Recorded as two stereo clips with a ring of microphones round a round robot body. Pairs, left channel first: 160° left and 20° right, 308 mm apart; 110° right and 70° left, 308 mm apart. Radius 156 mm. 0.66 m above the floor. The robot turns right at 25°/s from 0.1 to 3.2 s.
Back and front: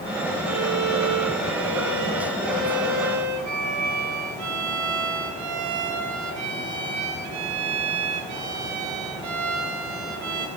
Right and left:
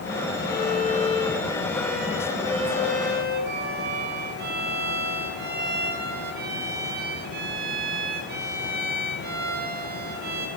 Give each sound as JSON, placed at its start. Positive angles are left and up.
{"t": 0.5, "sound": "a violin", "azimuth_deg": -60, "distance_m": 2.5}